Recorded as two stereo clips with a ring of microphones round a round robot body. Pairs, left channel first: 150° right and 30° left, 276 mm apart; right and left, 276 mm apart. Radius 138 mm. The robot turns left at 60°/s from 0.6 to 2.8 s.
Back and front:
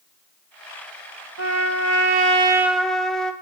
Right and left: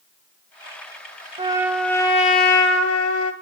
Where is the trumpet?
25° left, 2 m; by 3.3 s 60° right, 2 m.